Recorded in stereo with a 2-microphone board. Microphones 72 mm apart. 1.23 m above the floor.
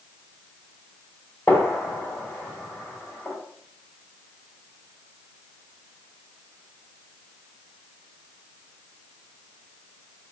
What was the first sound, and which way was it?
A gunshot, 20° left (ahead or behind).